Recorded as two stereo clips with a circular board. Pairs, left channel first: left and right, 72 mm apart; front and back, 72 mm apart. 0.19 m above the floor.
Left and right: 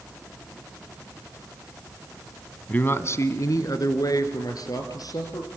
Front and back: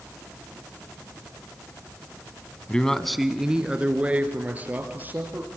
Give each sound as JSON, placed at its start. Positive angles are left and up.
{"t": 2.7, "sound": "a man speaking", "azimuth_deg": 55, "distance_m": 1.1}